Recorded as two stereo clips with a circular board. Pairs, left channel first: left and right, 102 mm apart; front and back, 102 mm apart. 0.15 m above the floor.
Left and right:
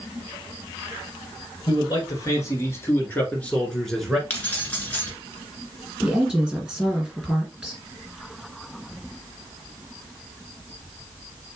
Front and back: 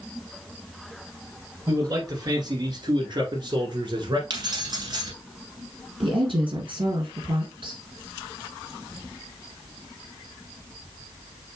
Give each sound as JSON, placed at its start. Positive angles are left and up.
{"t": 1.7, "sound": "a man speaking", "azimuth_deg": 130, "distance_m": 2.0}
{"t": 4.3, "sound": "keys jangling", "azimuth_deg": 160, "distance_m": 1.7}
{"t": 6.0, "sound": "a woman speaking", "azimuth_deg": -175, "distance_m": 2.5}